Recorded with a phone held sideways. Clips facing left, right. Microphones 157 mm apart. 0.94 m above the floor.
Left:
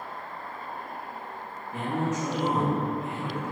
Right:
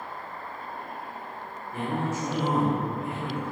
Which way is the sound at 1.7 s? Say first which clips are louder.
Left 1 dB; 20° left (ahead or behind).